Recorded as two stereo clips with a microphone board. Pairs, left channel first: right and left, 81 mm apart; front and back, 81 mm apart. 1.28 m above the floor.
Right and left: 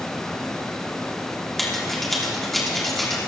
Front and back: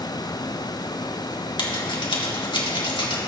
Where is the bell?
I don't hear a bell.